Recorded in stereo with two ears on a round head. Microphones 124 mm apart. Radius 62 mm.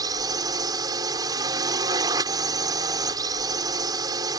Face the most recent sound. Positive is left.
turn(degrees=-30)  # may be behind; listen again after turning